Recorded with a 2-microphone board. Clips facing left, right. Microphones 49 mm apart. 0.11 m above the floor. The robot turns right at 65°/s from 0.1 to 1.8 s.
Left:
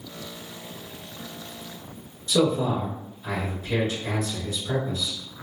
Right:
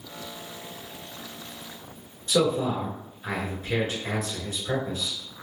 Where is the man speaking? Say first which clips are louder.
Left 1 dB; 35° right (ahead or behind), 1.2 m.